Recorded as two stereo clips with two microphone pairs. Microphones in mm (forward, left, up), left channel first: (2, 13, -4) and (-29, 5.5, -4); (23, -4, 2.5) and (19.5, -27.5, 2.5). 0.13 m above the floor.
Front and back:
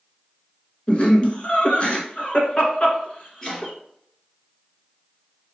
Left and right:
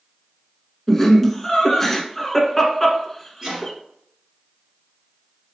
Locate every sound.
0.9 s laughter: 10° left, 1.5 m
3.4 s chopping: 55° right, 2 m